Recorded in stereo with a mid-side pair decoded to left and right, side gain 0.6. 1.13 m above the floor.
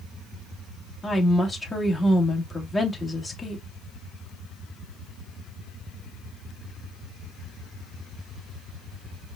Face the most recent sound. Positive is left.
turn(degrees=15)